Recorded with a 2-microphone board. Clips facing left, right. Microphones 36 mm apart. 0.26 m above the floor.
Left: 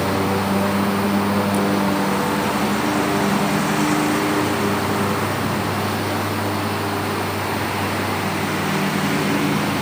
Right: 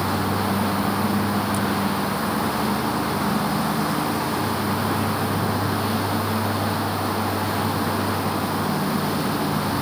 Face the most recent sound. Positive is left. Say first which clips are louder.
# left 3 dB
turn(degrees=65)  # may be behind; listen again after turning